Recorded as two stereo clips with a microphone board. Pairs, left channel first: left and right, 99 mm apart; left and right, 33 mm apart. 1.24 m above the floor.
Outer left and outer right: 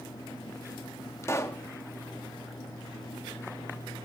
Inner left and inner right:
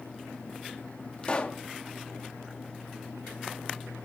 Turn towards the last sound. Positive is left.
turn(degrees=30)  # may be behind; listen again after turning